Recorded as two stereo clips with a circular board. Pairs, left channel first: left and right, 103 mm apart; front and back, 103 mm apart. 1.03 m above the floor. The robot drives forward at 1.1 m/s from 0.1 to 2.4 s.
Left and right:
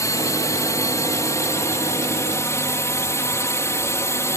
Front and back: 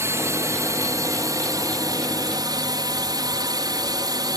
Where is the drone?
130° left; by 4.4 s 145° left.